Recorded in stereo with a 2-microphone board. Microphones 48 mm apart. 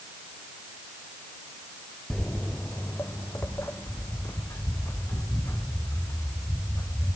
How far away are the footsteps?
About 0.7 m.